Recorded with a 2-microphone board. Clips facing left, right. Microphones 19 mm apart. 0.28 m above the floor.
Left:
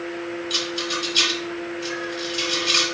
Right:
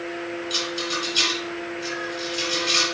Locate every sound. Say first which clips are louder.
0.5 s a rattle: left 1 dB; 10° left (ahead or behind), 1.5 m